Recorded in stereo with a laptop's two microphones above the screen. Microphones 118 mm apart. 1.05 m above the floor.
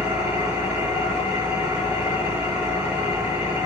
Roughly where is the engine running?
Centre.